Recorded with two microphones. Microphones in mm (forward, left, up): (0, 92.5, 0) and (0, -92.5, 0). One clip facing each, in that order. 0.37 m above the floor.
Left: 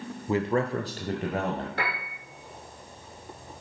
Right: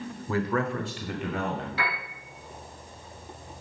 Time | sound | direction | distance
0.3 | a man speaking | 15° left (ahead or behind) | 0.8 m
1.8 | a piano | 50° left (ahead or behind) | 5 m